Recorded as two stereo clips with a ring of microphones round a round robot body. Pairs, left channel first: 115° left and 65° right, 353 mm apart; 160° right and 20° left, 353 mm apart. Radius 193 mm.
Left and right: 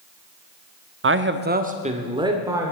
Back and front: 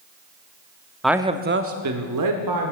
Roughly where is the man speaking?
Right.